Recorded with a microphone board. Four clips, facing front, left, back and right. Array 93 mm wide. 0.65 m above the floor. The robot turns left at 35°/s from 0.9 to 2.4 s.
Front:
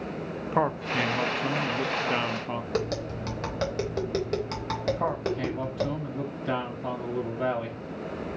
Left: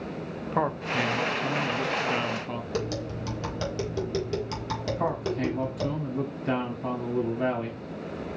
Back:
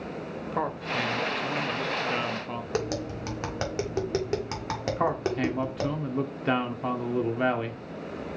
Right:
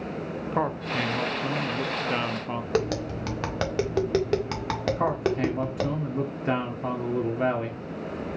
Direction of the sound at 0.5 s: Straight ahead.